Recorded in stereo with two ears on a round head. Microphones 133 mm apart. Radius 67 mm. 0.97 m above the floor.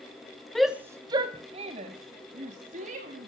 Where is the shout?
5° left (ahead or behind), 0.6 m; by 3.3 s 55° right (ahead or behind), 2 m.